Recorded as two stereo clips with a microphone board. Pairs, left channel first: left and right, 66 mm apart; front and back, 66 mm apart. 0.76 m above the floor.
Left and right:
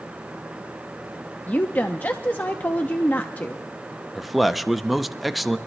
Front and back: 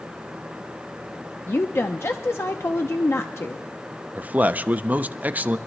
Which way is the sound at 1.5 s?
35° left.